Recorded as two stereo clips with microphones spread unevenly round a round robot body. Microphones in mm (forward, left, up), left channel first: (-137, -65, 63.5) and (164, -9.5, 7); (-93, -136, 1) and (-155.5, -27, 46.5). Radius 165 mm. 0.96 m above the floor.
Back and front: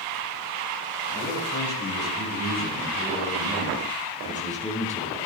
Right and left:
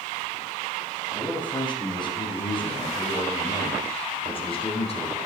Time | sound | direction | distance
1.1 | a man speaking | 115° right | 7.5 m